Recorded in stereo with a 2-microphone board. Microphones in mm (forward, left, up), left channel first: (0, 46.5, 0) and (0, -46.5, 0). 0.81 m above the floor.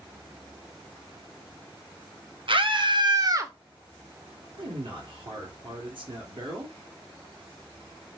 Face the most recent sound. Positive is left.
turn(degrees=-55)  # may be behind; listen again after turning